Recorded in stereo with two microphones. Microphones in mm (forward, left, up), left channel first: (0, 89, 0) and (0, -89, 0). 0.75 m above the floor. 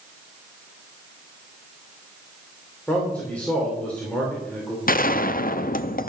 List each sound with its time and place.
2.9 s a man speaking: 5° left (ahead or behind), 3 m
4.9 s a gunshot: 50° left (ahead or behind), 0.5 m